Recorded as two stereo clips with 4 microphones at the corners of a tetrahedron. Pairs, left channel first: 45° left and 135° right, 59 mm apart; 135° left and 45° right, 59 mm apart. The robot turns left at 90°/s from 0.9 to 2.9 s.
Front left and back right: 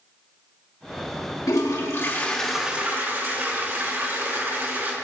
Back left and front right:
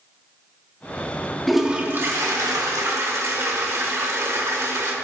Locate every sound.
1.5 s a toilet flushing: 50° left, 1.6 m; by 5.0 s 80° right, 1.6 m